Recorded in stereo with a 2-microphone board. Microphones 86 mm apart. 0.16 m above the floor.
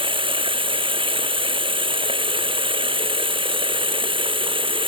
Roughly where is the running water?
Right.